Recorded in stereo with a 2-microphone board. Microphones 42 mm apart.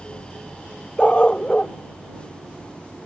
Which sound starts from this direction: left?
A dog barking, at 1.0 s.